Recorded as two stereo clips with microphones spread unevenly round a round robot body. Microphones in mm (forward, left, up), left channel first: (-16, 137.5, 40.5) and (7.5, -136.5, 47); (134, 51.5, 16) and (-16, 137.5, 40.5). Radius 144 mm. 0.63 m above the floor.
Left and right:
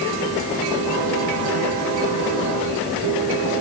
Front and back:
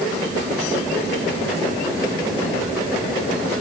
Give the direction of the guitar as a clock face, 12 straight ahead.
I don't hear a guitar.